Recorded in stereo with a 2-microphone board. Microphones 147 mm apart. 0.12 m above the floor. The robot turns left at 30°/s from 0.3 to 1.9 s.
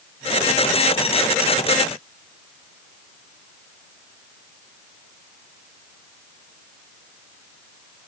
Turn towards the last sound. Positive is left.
No sound to turn to.